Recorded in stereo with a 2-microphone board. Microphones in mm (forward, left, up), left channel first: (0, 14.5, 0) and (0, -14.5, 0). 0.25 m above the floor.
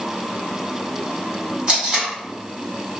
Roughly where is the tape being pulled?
Right.